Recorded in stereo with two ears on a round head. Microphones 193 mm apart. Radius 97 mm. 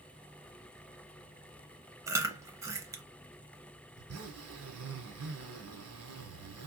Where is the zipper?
80° right, 1.4 m.